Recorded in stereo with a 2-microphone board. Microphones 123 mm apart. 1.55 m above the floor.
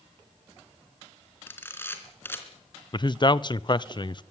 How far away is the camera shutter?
About 3 m.